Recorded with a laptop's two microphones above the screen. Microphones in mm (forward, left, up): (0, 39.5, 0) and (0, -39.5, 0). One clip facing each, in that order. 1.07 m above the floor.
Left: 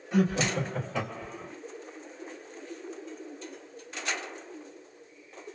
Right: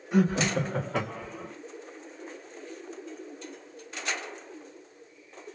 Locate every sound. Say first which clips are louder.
0.1 s laughter: right 2 dB; 15° right (ahead or behind), 0.7 m; by 1.5 s 65° right (ahead or behind), 1.5 m